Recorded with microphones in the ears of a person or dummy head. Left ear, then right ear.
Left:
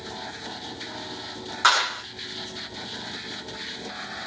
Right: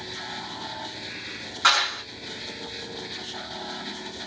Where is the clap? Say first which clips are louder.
Even; 30° left (ahead or behind), 1.0 m.